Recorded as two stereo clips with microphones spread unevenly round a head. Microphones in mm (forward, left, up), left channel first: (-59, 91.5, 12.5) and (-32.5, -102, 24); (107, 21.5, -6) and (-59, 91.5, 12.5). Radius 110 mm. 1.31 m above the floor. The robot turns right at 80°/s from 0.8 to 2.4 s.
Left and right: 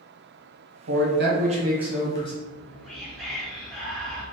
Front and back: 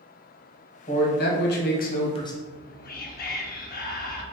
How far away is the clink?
No clink in this recording.